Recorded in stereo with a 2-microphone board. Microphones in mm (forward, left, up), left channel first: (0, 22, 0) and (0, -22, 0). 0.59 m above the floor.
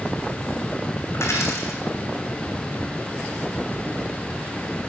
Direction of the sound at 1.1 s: 75° left (ahead or behind).